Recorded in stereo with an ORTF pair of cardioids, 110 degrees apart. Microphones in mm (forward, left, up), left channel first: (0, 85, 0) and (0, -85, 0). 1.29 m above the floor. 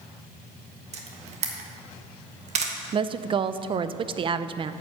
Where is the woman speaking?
35° right, 0.5 m.